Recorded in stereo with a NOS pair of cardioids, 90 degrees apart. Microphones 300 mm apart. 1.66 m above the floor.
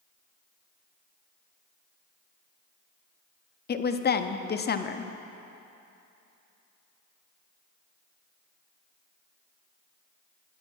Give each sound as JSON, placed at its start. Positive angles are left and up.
{"t": 3.7, "sound": "a woman speaking", "azimuth_deg": 35, "distance_m": 0.7}